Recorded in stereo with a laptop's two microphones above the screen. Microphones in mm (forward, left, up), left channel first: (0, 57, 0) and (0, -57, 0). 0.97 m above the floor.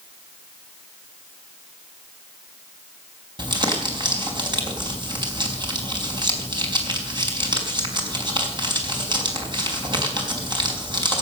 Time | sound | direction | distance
3.4 | crumpling | 45° right (ahead or behind) | 4.5 m